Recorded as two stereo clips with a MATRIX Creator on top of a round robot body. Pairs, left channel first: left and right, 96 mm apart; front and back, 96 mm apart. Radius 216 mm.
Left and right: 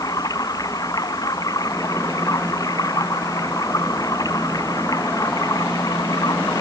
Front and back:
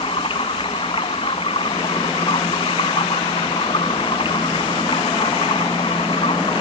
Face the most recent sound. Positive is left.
turn(degrees=35)